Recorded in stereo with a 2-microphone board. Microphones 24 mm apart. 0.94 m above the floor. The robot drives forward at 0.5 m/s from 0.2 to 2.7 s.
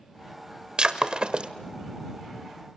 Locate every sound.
0.8 s breaking glass: 45° right (ahead or behind), 1.4 m; by 1.5 s 55° right (ahead or behind), 1.2 m